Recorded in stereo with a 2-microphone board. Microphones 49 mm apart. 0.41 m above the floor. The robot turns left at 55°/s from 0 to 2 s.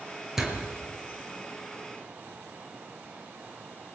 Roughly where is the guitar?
I don't hear a guitar.